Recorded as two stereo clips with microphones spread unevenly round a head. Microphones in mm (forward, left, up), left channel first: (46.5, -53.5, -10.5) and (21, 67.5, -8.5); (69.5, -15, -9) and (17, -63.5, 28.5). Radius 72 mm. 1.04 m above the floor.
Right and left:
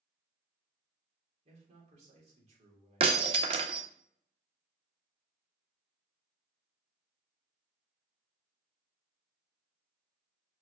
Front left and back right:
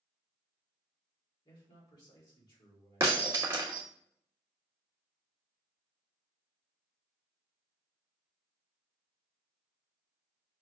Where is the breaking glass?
155° left, 0.6 m.